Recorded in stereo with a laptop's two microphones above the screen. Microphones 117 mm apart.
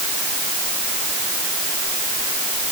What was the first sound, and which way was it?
Only background noise.